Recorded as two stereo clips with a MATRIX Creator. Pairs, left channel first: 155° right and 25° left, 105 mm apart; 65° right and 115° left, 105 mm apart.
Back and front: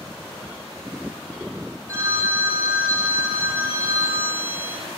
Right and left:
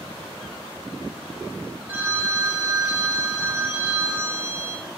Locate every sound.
1.9 s a phone ringing: 60° left, 0.8 m